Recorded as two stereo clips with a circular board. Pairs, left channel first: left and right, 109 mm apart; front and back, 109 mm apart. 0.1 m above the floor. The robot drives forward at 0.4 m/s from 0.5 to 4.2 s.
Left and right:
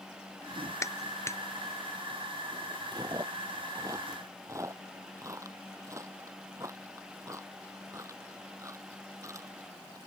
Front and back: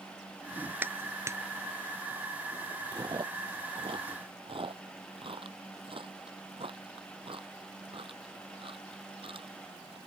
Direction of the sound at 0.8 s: 125° left.